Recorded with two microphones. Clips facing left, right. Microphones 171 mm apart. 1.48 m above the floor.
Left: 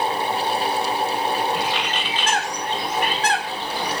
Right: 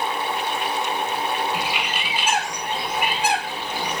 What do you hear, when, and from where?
1.5 s a bird: 10° right (ahead or behind), 2.5 m